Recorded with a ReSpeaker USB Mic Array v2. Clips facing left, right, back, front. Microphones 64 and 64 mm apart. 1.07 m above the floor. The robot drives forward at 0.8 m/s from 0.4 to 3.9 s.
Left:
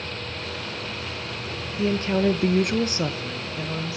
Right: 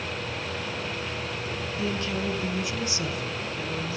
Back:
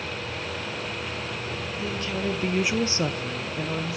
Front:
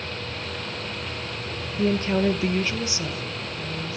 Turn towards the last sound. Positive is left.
turn(degrees=160)